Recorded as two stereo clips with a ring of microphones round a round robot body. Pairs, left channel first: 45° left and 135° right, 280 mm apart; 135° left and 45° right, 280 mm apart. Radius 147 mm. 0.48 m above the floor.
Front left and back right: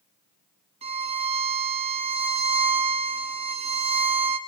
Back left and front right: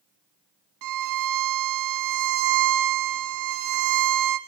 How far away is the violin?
About 1.6 m.